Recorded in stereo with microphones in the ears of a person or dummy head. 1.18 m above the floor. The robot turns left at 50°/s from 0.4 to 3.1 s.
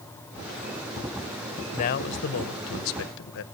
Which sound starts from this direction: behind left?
A man speaking, at 1.7 s.